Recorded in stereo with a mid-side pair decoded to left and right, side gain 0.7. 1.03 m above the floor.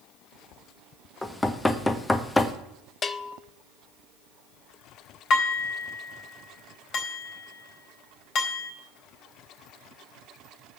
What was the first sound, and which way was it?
Knocking, 15° left.